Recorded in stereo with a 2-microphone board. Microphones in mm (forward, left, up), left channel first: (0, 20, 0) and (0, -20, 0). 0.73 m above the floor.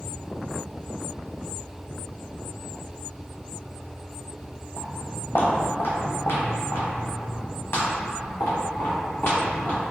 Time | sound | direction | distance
4.8 | footsteps | 50° left (ahead or behind) | 1.1 m